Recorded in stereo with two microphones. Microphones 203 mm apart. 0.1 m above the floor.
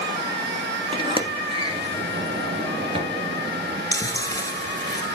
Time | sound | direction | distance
0.9 | a sliding door | 30° right (ahead or behind) | 1.2 m
3.9 | chewing | 20° left (ahead or behind) | 1.1 m